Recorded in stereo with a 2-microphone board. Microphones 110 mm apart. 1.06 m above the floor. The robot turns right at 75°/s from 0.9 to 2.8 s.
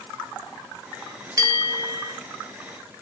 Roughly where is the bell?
Right.